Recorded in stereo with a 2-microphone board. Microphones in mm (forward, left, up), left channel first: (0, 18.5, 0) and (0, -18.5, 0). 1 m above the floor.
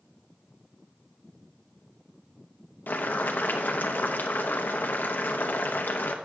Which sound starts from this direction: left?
Boiling, at 2.9 s.